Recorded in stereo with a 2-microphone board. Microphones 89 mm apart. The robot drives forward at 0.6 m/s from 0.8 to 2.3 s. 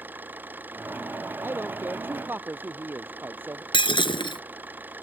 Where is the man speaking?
25° right (ahead or behind).